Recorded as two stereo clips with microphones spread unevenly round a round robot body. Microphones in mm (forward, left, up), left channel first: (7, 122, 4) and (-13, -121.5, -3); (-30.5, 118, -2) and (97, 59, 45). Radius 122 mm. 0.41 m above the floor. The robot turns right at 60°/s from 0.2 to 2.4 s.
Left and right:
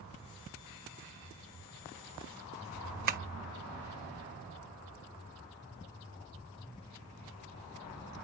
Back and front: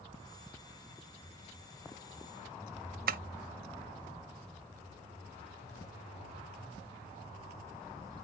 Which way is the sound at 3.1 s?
40° right.